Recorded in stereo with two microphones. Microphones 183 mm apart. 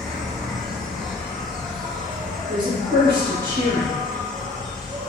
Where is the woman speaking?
25° right (ahead or behind), 1.0 m.